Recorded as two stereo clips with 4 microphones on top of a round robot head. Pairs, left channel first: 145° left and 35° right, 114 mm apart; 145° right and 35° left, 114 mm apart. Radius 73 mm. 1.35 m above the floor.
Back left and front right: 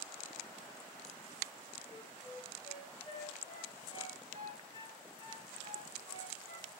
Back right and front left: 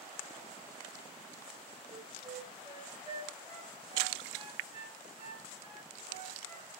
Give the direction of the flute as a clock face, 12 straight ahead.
9 o'clock.